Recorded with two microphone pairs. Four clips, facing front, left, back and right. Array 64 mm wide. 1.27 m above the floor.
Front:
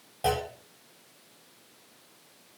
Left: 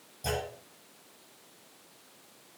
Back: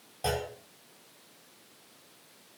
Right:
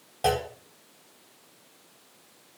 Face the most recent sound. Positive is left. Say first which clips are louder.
# right 8 dB, front 4 dB
turn(degrees=-80)